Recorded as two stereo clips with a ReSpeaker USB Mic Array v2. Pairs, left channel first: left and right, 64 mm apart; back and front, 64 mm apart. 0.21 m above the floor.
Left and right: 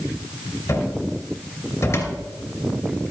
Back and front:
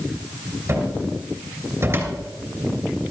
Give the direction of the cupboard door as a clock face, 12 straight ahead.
10 o'clock.